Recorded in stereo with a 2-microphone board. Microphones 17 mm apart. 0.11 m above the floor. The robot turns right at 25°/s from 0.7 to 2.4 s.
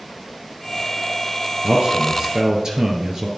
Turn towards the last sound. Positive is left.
turn(degrees=-45)  # may be behind; listen again after turning